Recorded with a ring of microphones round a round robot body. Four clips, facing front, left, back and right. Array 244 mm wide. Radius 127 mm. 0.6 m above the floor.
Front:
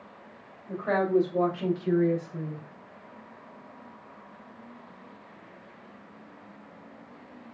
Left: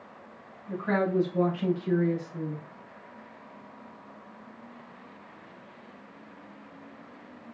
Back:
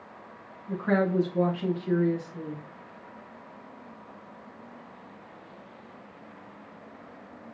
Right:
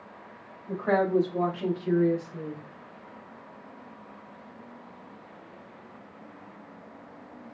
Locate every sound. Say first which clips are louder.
0.7 s a woman speaking: right 3 dB, even; 55° right, 3 m; by 2.6 s 10° right, 3.5 m